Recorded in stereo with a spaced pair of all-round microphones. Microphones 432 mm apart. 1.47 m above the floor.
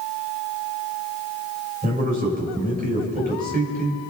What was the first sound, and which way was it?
A man speaking, 20° right (ahead or behind).